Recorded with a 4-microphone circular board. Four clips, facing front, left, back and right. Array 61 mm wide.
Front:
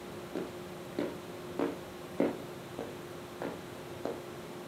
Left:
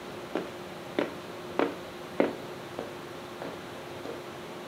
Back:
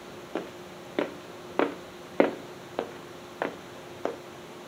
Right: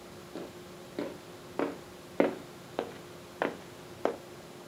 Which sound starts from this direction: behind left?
Footsteps, at 0.3 s.